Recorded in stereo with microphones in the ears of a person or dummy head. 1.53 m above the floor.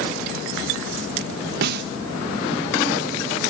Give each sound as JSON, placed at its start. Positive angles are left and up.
{"t": 1.6, "sound": "a snare drum", "side_deg": -60}